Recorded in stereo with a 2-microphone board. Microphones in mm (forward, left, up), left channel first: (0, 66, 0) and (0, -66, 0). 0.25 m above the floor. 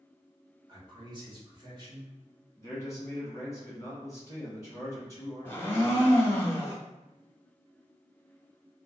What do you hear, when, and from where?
0.7 s a man speaking: 40° right (ahead or behind), 1.1 m
2.6 s a man speaking: 25° left (ahead or behind), 1.7 m
5.5 s a blender: 20° left (ahead or behind), 0.6 m